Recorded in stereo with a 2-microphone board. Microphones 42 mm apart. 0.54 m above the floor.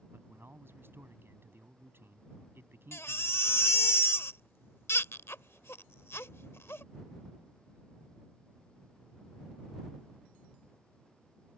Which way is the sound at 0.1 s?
65° right (ahead or behind).